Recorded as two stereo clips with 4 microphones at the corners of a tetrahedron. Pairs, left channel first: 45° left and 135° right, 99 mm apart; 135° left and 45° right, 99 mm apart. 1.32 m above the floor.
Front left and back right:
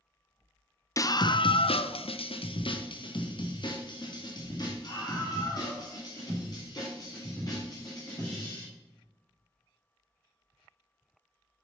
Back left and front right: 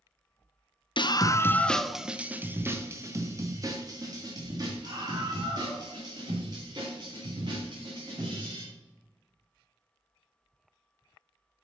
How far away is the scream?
About 0.6 m.